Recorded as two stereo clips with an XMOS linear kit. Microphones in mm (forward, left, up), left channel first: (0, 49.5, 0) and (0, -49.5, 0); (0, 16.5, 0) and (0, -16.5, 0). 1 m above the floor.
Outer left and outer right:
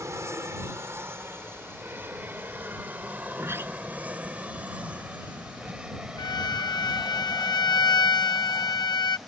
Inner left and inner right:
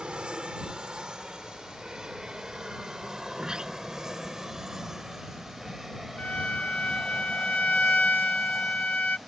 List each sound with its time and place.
0.0 s an aircraft: 30° right (ahead or behind); by 9.3 s 5° right (ahead or behind)
3.3 s a sliding door: 25° right (ahead or behind)
6.2 s a violin: 40° left (ahead or behind)